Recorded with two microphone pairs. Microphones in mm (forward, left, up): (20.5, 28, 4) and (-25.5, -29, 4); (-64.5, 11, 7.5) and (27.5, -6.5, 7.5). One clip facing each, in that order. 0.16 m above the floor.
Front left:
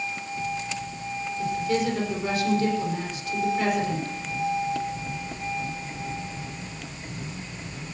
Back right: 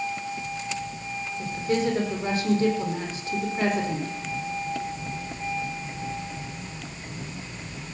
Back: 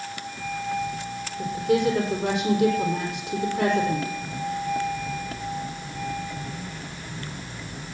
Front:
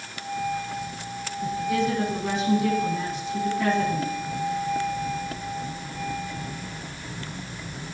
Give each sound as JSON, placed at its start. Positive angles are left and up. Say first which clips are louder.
{"t": 1.4, "sound": "a woman speaking", "louder": "even, back 3 dB", "azimuth_deg": 170, "distance_m": 5.5}